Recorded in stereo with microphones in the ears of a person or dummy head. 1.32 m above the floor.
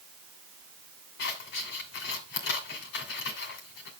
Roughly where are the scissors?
Left.